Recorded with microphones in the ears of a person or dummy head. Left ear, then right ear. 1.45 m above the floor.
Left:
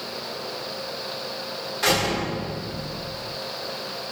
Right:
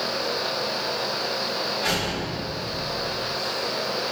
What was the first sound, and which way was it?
A door slam, 50° left (ahead or behind).